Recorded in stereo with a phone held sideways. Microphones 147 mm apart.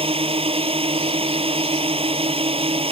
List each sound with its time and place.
0.0 s a drone: 45° right (ahead or behind)